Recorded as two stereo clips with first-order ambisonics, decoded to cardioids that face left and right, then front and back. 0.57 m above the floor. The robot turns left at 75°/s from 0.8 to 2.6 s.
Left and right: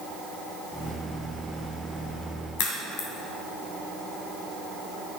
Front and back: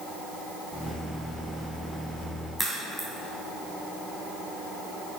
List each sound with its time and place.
2.6 s a crack: 80° left, 3 m